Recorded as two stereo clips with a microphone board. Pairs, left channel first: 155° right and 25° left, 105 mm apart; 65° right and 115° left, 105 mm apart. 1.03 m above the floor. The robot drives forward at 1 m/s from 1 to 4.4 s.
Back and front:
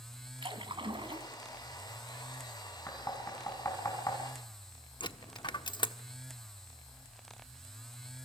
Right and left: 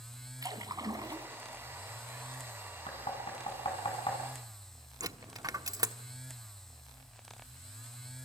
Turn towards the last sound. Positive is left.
turn(degrees=165)